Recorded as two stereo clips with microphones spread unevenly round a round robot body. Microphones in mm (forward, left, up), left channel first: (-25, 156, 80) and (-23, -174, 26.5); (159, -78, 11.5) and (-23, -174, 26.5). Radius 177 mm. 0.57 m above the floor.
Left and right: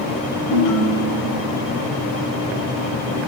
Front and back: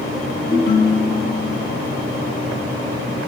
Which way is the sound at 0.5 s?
90° left.